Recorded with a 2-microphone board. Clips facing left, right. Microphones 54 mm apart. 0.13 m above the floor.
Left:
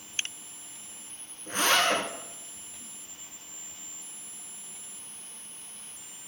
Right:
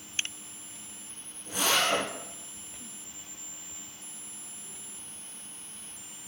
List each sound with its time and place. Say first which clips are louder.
1.5 s a zipper: left 2 dB; 45° left (ahead or behind), 6.5 m